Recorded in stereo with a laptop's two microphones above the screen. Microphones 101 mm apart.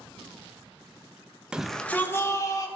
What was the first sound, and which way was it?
A shout, 10° right (ahead or behind).